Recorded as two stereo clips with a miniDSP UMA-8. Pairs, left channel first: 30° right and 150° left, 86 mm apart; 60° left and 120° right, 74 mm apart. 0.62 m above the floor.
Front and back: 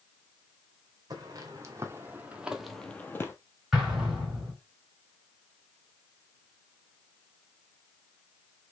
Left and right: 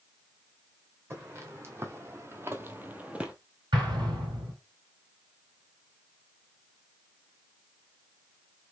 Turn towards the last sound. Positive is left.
turn(degrees=-125)